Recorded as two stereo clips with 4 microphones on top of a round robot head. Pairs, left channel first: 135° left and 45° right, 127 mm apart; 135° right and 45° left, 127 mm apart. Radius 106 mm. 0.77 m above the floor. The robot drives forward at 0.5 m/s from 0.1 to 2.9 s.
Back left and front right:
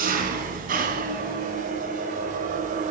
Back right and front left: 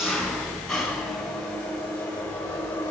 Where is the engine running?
45° right, 4 m; by 2.9 s 60° right, 3.5 m.